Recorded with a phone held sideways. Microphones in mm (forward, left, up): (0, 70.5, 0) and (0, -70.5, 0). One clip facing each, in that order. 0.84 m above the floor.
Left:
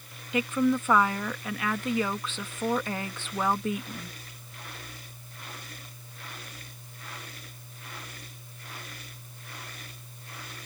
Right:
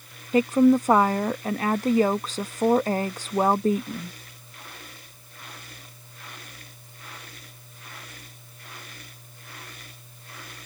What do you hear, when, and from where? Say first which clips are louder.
0.3 s a woman speaking: right 8 dB; 40° right (ahead or behind)